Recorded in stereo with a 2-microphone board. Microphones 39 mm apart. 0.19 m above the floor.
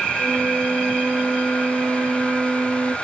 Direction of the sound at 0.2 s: 55° right (ahead or behind).